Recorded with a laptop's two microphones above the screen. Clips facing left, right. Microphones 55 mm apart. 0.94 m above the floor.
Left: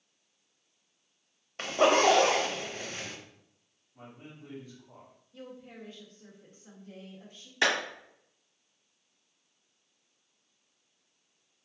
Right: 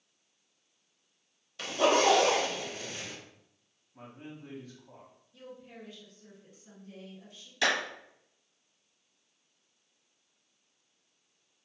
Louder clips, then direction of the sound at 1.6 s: Left 2 dB; 40° left (ahead or behind).